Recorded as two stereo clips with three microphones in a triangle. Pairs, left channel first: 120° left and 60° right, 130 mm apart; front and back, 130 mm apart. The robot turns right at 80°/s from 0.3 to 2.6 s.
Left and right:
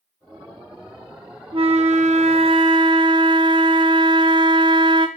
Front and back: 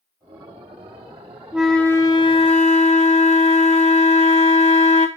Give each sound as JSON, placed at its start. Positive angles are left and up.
{"t": 1.5, "sound": "a flute", "azimuth_deg": -100, "distance_m": 0.6}